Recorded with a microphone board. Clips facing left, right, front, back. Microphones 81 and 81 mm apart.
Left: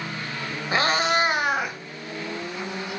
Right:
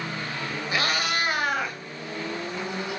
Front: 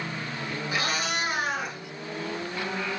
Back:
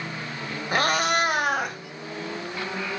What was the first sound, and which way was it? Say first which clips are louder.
A cat meowing: left 6 dB, back 8 dB; 145° left.